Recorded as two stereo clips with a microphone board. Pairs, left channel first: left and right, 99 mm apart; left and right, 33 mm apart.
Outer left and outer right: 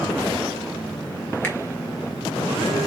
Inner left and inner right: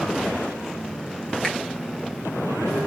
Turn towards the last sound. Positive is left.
turn(degrees=20)  # may be behind; listen again after turning